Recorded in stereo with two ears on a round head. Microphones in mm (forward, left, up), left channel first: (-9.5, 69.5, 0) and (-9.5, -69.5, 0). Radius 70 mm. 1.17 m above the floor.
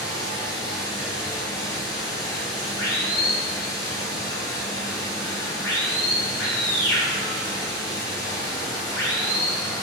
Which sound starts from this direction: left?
Running water, at 0.0 s.